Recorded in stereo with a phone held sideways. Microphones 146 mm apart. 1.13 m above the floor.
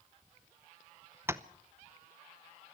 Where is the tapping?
15° right (ahead or behind), 0.8 m.